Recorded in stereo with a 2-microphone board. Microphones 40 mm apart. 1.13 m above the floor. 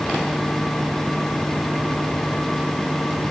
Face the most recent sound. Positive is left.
No sound to turn to.